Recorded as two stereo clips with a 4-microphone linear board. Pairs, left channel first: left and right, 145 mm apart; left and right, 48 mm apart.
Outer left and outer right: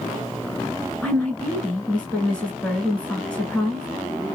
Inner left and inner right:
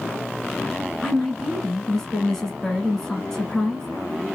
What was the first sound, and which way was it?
A woman speaking, 10° left (ahead or behind).